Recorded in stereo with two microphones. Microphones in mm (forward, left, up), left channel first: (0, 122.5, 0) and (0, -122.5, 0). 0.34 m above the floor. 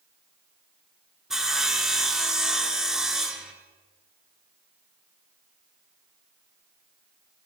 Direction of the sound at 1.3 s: Centre (ahead or behind).